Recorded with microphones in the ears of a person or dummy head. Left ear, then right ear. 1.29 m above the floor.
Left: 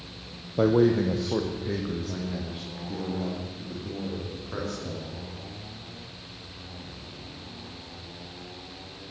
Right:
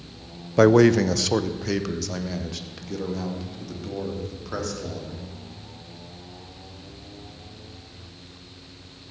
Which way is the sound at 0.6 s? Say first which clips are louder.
Right 6 dB; 55° right (ahead or behind).